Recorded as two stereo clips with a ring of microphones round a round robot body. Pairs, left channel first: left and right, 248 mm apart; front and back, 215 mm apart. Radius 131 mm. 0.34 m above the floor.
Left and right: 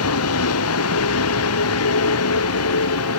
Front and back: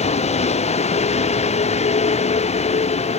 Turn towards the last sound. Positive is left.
turn(degrees=60)